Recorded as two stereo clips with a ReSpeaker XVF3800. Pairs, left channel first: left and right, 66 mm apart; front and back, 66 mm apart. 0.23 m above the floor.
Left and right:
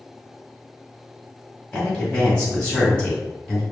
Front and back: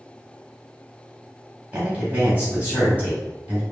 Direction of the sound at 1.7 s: 150° left.